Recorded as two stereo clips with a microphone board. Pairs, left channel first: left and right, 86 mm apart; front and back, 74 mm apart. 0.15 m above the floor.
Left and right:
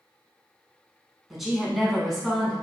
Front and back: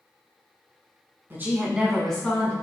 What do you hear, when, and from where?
1.3 s a woman speaking: 175° right, 1.2 m; by 2.5 s 5° left, 1.1 m